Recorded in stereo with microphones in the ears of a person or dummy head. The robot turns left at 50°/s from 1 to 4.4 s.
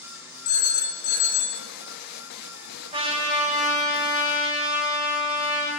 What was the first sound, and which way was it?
A phone ringing, 60° left.